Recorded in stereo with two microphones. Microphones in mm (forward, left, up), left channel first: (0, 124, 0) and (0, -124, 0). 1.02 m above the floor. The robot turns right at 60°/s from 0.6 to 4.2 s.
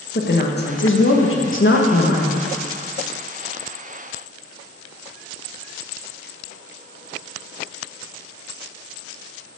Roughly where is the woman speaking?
Ahead left.